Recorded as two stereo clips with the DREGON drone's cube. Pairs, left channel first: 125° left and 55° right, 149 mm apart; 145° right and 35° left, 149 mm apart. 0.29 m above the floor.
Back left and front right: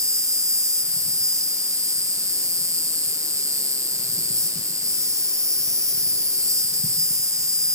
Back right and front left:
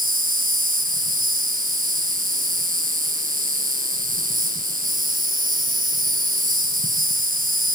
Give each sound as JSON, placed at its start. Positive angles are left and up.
{"t": 0.0, "sound": "an insect", "azimuth_deg": 15, "distance_m": 3.5}